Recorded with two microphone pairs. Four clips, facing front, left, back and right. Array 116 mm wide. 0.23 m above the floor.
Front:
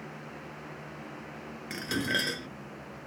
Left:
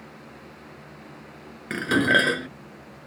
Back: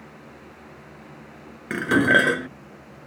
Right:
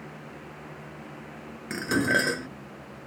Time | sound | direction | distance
1.7 | dishes clattering | 165° left | ?